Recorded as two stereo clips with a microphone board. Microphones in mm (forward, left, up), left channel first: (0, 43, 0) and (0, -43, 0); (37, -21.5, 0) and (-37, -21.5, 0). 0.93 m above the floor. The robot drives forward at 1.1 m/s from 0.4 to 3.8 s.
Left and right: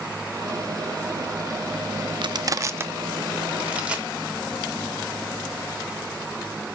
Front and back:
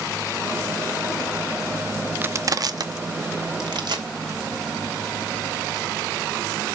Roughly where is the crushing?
Behind right.